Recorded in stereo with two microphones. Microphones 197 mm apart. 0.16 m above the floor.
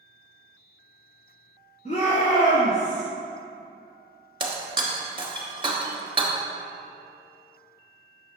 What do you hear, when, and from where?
1.9 s a shout: 40° left (ahead or behind), 1.9 m; by 3.0 s 55° left (ahead or behind), 2 m
4.4 s breaking glass: 25° right (ahead or behind), 1.2 m